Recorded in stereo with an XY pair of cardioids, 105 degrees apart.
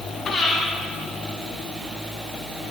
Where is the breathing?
40° left, 6.5 m.